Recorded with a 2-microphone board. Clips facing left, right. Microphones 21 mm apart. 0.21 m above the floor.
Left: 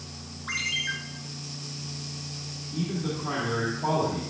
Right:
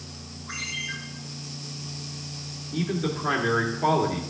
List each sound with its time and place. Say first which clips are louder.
0.5 s a ringtone: left 4 dB; 65° left (ahead or behind), 2.5 m
2.7 s a man speaking: right 3 dB; 50° right (ahead or behind), 2.5 m